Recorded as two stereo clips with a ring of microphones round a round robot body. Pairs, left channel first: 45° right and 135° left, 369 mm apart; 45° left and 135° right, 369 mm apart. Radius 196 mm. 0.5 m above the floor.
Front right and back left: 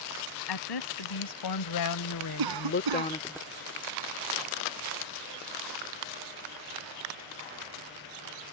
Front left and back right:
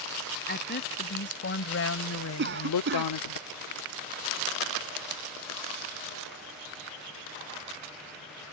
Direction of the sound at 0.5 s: 20° right.